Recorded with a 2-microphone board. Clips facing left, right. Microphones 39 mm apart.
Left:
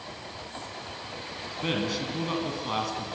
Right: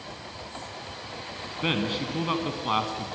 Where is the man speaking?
30° right (ahead or behind), 1.9 m.